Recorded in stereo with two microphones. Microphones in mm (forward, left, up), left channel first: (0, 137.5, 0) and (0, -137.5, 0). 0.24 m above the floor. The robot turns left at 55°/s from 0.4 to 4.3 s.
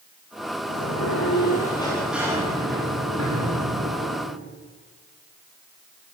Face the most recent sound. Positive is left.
turn(degrees=-120)